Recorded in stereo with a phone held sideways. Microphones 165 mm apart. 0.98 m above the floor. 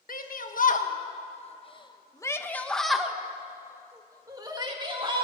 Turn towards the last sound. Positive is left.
turn(degrees=-30)  # may be behind; listen again after turning